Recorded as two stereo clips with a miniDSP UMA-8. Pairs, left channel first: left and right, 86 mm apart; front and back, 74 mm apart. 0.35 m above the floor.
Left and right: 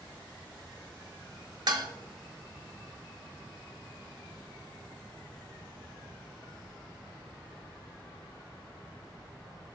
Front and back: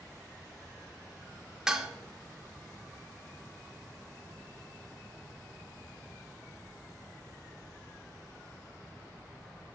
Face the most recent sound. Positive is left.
turn(degrees=-100)